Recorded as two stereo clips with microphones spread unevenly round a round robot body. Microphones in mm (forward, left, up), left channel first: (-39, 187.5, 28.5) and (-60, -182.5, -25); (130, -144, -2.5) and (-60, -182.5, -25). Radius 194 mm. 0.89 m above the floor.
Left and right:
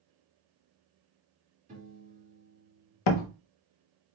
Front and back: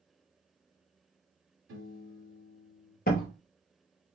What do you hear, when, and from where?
1.7 s a piano: 160° right, 1.8 m
3.1 s a door slam: 65° left, 0.6 m